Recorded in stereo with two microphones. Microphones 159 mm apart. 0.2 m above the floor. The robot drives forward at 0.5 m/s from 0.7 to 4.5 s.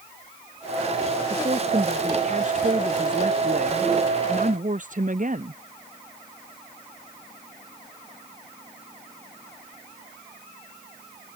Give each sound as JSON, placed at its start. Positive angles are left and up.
{"t": 1.3, "sound": "a woman speaking", "side_deg": -50}